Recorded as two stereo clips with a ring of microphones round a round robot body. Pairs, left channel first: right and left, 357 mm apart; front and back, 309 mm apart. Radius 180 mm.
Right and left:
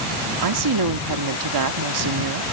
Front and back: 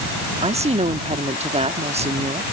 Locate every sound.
0.4 s a woman speaking: 110° left